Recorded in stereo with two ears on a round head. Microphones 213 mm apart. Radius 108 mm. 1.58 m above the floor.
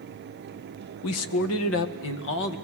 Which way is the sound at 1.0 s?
80° left.